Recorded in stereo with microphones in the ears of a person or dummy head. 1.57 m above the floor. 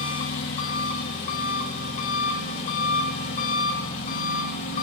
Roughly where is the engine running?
Left.